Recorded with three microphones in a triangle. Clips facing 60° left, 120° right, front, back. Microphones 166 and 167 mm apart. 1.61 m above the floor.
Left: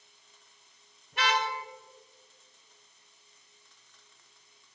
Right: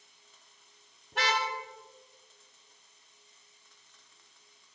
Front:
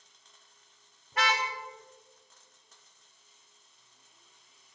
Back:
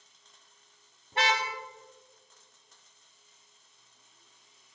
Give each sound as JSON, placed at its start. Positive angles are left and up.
{"t": 1.1, "sound": "a car horn", "azimuth_deg": -115, "distance_m": 3.0}